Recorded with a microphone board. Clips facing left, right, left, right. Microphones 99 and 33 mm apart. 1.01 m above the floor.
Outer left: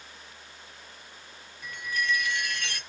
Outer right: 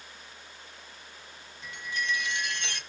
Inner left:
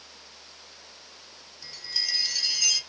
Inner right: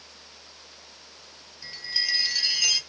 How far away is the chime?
About 0.9 m.